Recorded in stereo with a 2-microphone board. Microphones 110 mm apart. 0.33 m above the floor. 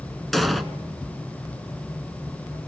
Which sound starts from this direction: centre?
An explosion, at 0.3 s.